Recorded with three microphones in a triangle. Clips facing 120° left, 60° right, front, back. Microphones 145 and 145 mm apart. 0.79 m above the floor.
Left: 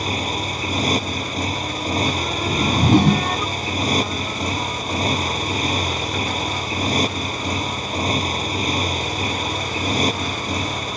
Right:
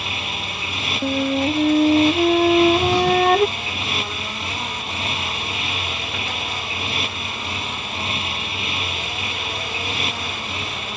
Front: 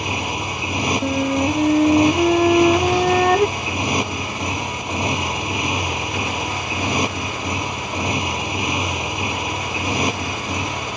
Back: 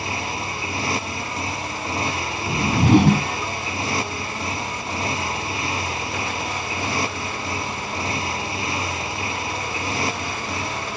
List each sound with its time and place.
0.0 s a motorcycle: 70° left
1.0 s a flute: 25° right
2.5 s a whoosh: 155° left